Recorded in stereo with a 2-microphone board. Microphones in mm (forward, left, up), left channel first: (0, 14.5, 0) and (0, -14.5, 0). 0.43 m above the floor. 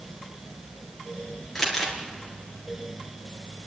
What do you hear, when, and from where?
1.6 s crumpling: 5° left (ahead or behind), 4 m